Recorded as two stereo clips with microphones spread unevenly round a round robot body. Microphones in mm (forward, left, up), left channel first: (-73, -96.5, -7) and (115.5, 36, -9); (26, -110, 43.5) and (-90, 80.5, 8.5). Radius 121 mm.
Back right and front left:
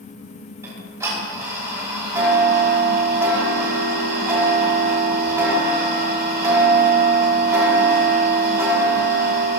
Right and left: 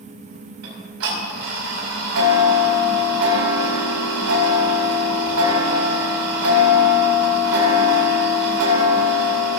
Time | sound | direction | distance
0.6 | ticking | 115° left | 5.5 m